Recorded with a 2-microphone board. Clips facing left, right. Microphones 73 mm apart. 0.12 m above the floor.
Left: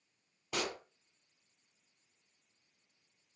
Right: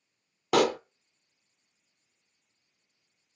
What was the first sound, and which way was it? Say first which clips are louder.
A pop: right 15 dB; 75° right (ahead or behind).